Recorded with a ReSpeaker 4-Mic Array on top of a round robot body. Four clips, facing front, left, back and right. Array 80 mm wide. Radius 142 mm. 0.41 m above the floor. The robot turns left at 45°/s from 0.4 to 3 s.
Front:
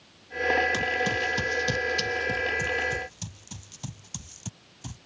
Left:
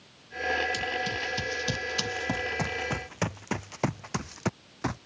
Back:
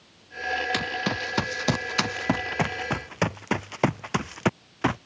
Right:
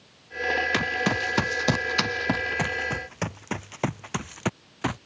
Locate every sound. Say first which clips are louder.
0.7 s running footsteps: right 6 dB, front 1 dB; 105° right; by 5.0 s 170° right